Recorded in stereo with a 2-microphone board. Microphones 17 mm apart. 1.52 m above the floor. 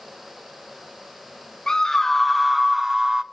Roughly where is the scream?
Left.